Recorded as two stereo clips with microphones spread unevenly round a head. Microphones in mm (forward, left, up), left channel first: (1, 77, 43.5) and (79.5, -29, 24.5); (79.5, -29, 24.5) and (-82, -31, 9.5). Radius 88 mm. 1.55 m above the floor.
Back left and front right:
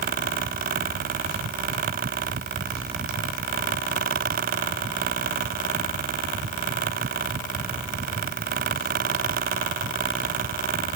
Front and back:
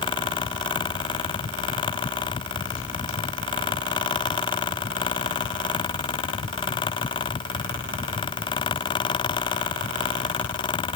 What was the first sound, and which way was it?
Only background noise.